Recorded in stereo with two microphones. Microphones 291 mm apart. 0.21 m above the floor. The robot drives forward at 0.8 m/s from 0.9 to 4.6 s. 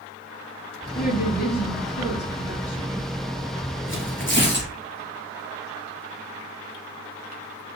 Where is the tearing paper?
45° left (ahead or behind), 3 m; by 4.7 s 35° left (ahead or behind), 3 m.